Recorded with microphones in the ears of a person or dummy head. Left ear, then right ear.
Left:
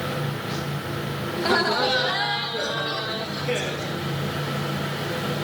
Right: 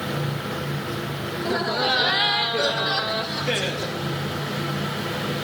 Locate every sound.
1.4 s laughter: 25° left (ahead or behind), 0.6 m; by 4.0 s 50° right (ahead or behind), 1.7 m